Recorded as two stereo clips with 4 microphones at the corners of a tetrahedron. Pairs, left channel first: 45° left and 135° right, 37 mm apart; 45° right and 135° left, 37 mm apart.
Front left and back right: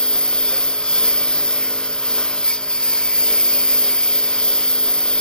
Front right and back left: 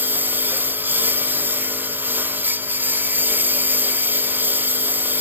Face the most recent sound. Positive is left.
turn(degrees=105)